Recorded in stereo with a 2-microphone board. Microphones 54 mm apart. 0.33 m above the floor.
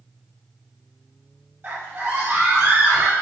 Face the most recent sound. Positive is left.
turn(degrees=-60)  # may be behind; listen again after turning